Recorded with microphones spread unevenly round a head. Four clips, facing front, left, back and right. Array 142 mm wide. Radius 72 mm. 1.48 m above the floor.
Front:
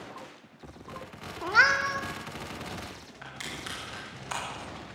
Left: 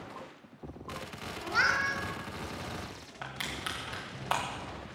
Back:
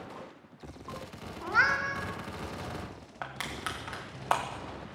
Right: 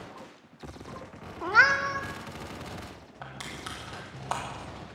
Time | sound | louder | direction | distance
1.4 | a cat meowing | right 7 dB, front 4 dB | 55° right | 1.6 m
3.2 | crushing | left 2 dB, back 4 dB | 175° right | 1.9 m